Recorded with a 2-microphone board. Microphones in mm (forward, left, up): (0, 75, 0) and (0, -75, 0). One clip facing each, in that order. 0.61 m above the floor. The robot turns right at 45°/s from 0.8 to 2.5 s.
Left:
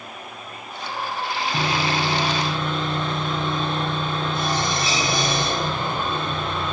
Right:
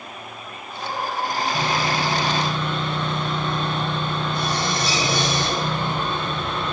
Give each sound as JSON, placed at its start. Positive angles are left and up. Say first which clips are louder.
{"t": 1.5, "sound": "sawing", "louder": "left 2 dB", "azimuth_deg": 135, "distance_m": 4.0}